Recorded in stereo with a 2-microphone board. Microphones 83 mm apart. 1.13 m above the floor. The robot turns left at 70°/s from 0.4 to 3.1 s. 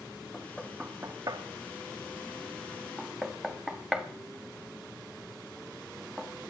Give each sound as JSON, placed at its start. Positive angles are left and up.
{"t": 0.3, "sound": "knocking", "side_deg": 15, "distance_m": 1.7}